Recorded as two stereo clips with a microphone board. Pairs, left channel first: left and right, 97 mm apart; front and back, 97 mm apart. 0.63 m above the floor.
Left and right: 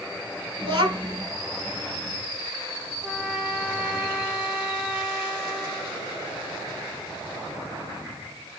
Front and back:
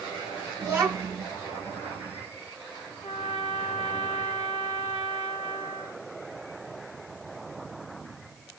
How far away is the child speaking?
About 1.6 m.